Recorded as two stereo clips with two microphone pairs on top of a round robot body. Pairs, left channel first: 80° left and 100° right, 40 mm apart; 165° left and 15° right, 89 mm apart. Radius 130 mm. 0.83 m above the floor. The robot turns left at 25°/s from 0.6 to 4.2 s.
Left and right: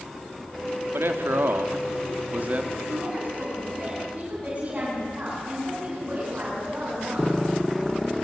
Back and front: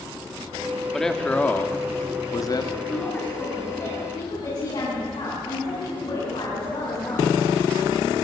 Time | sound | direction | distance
0.9 | a man speaking | 110° right | 1.9 m
2.9 | a woman speaking | 125° right | 8.5 m